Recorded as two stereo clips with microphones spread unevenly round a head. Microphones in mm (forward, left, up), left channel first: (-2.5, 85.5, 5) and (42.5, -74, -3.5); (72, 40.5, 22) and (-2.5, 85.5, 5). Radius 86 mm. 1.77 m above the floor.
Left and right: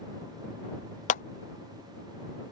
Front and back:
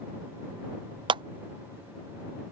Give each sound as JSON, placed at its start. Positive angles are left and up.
{"t": 1.1, "sound": "a clap", "azimuth_deg": 130}